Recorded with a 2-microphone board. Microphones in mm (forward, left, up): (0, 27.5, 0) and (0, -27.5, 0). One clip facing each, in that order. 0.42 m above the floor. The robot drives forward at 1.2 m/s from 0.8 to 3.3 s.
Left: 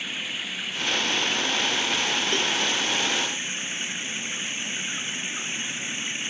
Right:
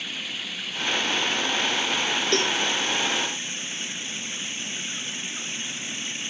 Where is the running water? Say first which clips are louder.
Left 2 dB; 15° left (ahead or behind); by 6.3 s 20° left (ahead or behind).